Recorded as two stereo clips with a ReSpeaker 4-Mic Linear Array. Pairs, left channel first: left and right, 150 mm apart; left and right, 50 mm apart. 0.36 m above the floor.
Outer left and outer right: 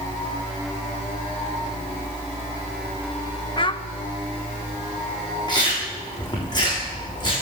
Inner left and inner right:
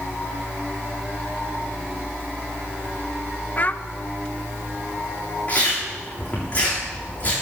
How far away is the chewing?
About 7.5 m.